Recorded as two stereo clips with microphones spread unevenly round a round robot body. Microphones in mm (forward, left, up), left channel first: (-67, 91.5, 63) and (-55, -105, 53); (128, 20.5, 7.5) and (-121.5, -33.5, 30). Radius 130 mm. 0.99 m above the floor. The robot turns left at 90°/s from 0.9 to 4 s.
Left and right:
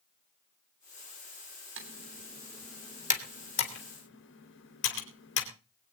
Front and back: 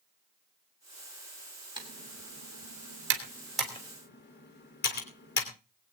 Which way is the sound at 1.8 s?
95° right.